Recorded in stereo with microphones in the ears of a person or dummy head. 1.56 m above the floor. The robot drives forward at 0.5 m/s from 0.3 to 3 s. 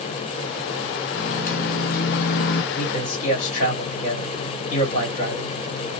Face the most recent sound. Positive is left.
turn(degrees=50)  # may be behind; listen again after turning